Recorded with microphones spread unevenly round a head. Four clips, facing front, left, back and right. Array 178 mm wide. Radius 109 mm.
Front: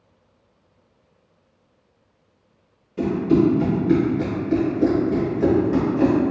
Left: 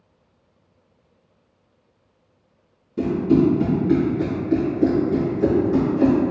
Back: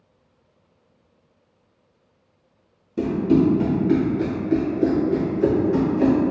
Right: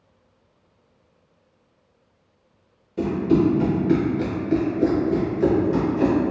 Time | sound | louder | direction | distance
3.0 | running footsteps | left 2 dB, even | straight behind | 1.6 m